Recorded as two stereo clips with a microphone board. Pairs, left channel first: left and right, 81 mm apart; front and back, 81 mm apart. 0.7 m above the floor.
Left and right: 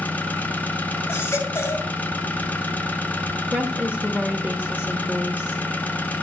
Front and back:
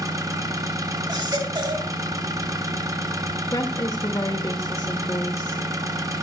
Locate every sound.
0.0 s an engine running: 155° left, 1.2 m
1.1 s a baby crying: 150° left, 2.5 m
3.5 s a woman speaking: 20° right, 1.3 m